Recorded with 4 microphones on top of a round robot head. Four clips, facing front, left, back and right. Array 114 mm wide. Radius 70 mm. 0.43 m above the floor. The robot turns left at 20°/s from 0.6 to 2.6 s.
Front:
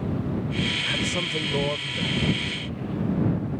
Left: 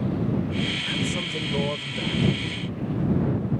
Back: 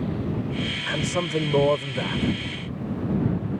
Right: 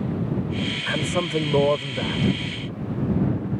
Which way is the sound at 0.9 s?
115° right.